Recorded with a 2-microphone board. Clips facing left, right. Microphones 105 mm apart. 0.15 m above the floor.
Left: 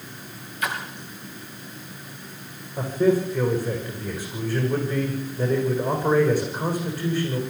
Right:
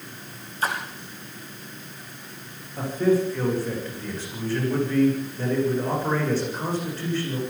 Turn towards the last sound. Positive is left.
turn(degrees=10)  # may be behind; listen again after turning